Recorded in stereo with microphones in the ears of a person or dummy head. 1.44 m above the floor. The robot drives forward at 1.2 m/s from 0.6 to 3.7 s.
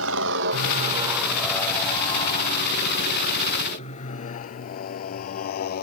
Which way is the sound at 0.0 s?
75° right (ahead or behind).